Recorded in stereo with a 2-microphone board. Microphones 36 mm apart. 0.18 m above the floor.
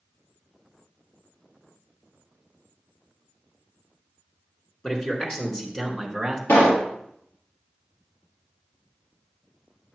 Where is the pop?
65° left (ahead or behind), 3 m.